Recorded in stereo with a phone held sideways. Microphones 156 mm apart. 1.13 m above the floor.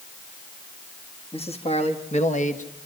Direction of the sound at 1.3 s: 40° left (ahead or behind).